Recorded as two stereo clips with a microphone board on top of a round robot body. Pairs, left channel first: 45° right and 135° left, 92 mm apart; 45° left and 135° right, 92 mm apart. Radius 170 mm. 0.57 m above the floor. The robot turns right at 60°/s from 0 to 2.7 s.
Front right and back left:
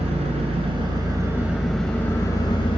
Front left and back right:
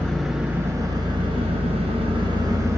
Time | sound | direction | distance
0.0 | an engine running | 125° left | 0.7 m